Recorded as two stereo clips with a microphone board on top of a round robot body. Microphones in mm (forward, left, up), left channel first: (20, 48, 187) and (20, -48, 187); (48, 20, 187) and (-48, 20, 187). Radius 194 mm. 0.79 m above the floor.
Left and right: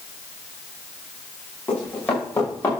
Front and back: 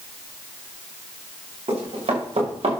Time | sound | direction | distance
1.7 | running footsteps | 165° left | 7 m